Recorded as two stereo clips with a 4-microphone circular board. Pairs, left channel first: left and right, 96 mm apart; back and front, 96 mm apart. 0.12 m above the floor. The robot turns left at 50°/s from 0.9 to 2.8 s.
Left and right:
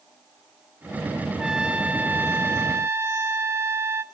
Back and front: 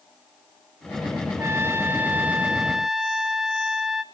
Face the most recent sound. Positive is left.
turn(degrees=-80)